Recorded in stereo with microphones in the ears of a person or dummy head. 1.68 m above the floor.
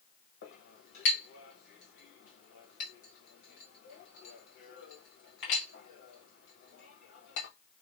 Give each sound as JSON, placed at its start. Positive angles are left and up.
{"t": 0.4, "sound": "a clink", "side_deg": 70, "distance_m": 1.7}